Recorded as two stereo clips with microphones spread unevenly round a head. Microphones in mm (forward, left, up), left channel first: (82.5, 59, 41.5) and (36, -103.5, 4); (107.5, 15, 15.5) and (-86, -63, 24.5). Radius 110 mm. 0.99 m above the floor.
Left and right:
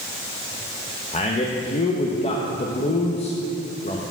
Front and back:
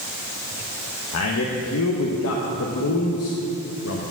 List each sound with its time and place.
1.1 s a man speaking: 15° left, 0.9 m